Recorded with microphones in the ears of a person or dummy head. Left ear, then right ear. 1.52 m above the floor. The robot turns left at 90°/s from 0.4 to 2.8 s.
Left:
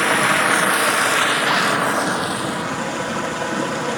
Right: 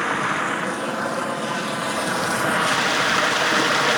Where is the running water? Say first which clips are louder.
Left 6 dB; 160° left, 1.0 m; by 4.0 s 55° right, 1.0 m.